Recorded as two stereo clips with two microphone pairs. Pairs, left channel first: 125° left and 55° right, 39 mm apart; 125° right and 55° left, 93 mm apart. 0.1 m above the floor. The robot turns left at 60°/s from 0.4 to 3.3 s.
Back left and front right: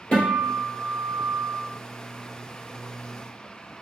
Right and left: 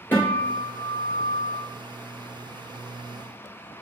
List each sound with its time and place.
0.1 s a guitar: straight behind, 1.9 m; by 1.6 s 105° left, 1.9 m